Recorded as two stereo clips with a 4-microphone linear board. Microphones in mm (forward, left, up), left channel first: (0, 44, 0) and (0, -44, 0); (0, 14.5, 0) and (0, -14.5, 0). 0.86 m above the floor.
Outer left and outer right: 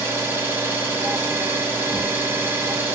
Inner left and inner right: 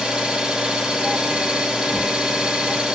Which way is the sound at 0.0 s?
25° right (ahead or behind).